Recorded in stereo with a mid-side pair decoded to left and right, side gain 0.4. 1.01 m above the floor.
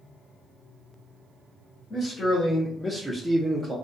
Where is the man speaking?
60° left, 1.0 m; by 3.8 s 35° right, 0.8 m.